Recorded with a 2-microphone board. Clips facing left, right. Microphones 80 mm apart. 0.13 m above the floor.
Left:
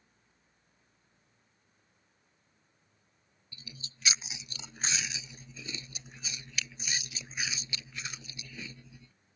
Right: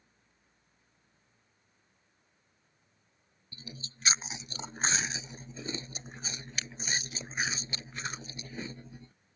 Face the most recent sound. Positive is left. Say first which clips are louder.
# right 4 dB
turn(degrees=-40)  # may be behind; listen again after turning